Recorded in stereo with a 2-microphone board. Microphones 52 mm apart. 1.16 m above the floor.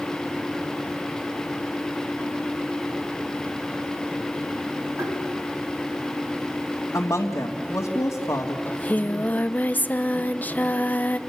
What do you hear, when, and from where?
5.0 s tapping: 70° right (ahead or behind), 5.5 m
6.9 s a woman speaking: 85° left, 2 m
8.7 s singing: 35° left (ahead or behind), 0.7 m